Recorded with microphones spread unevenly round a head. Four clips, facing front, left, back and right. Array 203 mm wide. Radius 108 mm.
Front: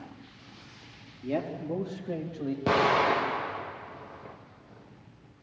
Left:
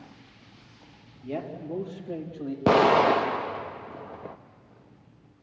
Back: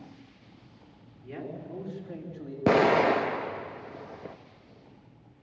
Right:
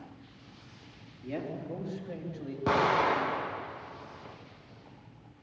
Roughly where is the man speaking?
Ahead.